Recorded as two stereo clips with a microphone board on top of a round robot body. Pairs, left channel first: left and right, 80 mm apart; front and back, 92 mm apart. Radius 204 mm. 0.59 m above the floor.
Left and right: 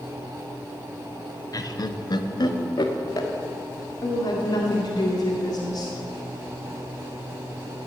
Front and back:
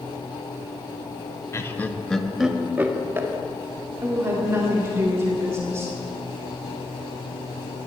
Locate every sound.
1.5 s laughter: 55° left, 1.4 m; by 3.3 s 120° left, 2.0 m
4.0 s a woman speaking: 120° left, 2 m